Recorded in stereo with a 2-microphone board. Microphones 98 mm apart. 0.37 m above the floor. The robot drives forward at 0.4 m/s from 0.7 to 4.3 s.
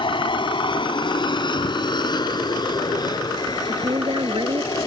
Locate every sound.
0.0 s an aircraft: 50° left (ahead or behind); by 4.9 s 35° left (ahead or behind)
3.6 s a woman speaking: 50° right (ahead or behind)